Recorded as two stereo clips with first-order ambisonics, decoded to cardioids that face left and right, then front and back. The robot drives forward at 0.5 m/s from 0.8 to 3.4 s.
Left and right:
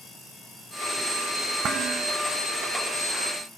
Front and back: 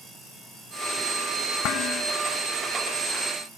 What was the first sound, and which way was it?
Dishes clattering, 35° right.